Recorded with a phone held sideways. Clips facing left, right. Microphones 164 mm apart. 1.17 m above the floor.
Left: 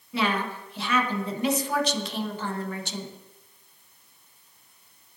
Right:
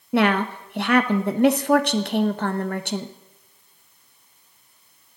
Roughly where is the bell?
No bell in this recording.